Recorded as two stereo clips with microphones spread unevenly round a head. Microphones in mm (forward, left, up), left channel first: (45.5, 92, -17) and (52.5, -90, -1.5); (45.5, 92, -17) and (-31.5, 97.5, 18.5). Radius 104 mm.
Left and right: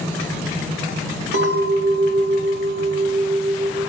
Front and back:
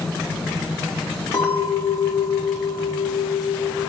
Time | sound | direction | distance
1.3 | a clink | 60° right | 1.8 m